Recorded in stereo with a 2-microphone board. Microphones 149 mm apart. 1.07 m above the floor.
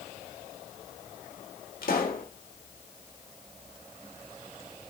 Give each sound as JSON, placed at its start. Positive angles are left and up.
{"t": 1.8, "sound": "a pop", "side_deg": 75, "distance_m": 3.0}